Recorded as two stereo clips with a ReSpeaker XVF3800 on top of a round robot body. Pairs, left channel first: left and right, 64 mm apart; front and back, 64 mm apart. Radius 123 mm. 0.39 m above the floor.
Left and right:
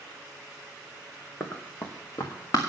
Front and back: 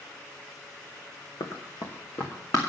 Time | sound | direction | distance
1.4 | running footsteps | 25° left | 2.5 m